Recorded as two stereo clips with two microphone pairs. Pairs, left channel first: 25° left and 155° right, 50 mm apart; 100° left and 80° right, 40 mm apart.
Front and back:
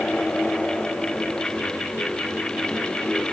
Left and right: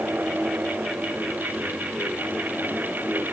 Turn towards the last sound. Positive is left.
No sound to turn to.